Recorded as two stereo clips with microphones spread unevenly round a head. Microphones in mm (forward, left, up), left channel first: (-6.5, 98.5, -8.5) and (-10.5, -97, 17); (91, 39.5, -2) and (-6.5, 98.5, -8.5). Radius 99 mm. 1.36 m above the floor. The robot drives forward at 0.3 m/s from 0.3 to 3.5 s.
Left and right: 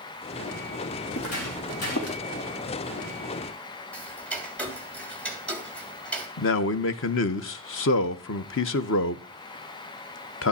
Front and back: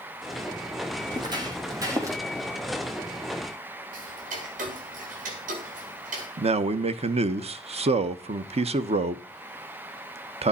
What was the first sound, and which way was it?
Footsteps, 95° left.